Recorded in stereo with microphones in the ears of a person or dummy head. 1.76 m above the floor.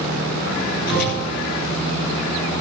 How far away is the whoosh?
About 7 m.